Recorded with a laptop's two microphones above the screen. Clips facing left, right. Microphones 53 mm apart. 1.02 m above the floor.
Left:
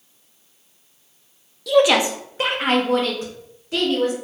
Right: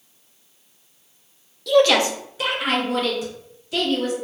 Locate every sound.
1.7 s a woman speaking: 5° left (ahead or behind), 0.5 m; by 4.1 s 45° left (ahead or behind), 1.5 m